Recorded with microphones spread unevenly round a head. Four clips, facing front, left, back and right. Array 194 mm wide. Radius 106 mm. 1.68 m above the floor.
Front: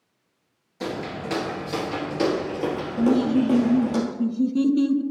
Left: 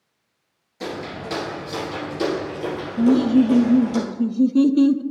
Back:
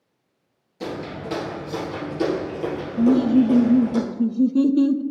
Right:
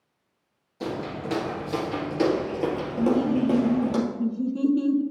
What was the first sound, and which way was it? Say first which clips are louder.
Footsteps: left 1 dB, even; straight ahead.